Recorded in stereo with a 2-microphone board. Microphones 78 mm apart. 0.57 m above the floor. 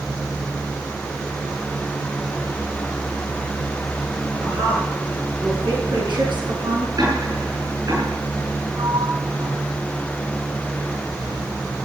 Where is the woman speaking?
85° right, 8 m; by 6.9 s 80° right, 5.5 m.